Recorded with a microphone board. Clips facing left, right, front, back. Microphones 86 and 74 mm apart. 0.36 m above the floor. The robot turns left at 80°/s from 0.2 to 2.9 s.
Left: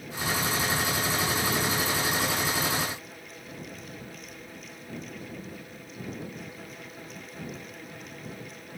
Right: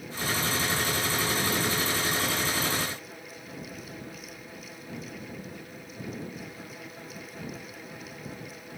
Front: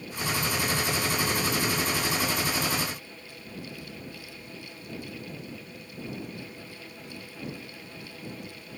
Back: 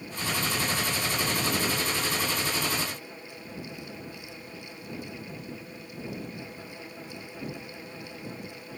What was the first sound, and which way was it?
Only background noise.